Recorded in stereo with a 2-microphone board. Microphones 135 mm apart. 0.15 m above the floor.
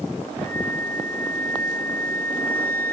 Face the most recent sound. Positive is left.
turn(degrees=15)  # may be behind; listen again after turning